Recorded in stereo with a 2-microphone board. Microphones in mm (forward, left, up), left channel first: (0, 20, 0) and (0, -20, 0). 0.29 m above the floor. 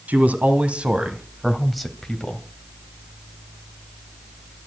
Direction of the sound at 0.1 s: 45° right (ahead or behind).